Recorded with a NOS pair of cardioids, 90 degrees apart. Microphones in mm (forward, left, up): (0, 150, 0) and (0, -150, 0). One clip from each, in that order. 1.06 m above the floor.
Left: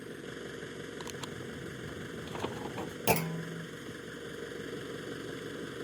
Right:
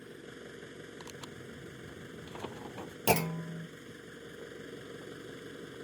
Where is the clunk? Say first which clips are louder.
Right 1 dB; 5° right.